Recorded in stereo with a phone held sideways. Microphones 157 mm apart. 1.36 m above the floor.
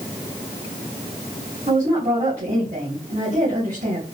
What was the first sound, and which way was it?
A woman speaking, 55° right (ahead or behind).